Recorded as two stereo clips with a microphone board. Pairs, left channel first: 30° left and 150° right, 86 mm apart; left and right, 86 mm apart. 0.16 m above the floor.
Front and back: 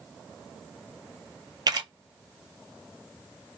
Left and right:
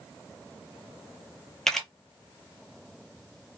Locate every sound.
1.7 s a camera shutter: 175° left, 0.6 m